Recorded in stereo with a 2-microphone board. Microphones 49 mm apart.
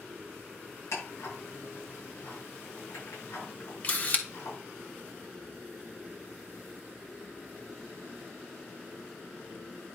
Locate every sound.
0.9 s ticking: 70° left (ahead or behind), 6 m
3.8 s a camera shutter: 35° left (ahead or behind), 1.4 m